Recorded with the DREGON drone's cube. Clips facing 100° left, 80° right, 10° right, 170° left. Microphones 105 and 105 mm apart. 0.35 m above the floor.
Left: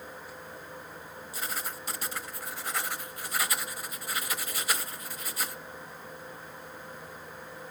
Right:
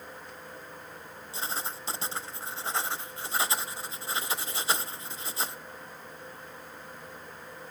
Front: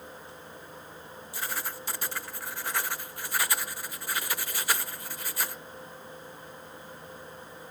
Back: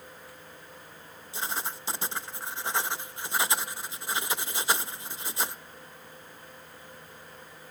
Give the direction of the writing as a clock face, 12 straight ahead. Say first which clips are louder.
Right 2 dB, back 2 dB; 4 o'clock.